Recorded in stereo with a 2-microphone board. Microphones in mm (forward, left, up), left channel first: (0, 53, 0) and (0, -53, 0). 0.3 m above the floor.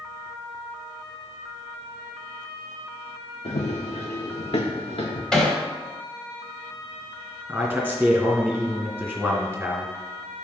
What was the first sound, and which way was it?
Running footsteps, 80° left.